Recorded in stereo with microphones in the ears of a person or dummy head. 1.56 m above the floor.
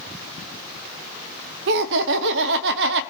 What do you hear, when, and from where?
1.7 s laughter: 65° right (ahead or behind), 0.8 m